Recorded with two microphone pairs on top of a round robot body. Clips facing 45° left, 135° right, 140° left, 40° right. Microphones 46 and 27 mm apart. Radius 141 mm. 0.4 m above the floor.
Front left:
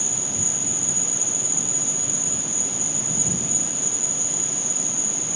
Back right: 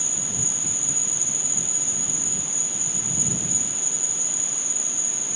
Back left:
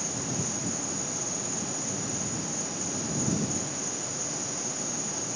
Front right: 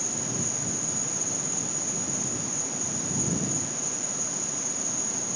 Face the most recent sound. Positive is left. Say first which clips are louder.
# front left 2 dB, even
turn(degrees=165)